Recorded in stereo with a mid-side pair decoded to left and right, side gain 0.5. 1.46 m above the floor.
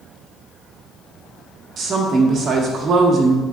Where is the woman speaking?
55° right, 1.6 m.